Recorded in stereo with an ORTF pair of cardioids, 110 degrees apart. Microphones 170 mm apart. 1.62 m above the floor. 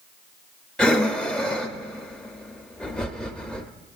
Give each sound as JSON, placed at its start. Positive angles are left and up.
{"t": 0.8, "sound": "breathing", "azimuth_deg": 5, "distance_m": 0.5}